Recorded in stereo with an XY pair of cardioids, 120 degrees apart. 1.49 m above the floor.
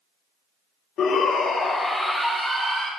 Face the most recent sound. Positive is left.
turn(degrees=-25)